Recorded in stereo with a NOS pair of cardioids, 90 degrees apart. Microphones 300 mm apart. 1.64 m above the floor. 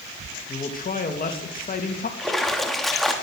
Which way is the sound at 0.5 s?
30° left.